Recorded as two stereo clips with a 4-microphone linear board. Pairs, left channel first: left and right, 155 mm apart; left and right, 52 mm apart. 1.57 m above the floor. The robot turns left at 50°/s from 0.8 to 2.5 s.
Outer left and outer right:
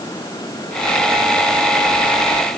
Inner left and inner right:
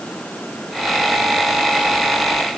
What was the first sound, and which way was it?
Only background noise.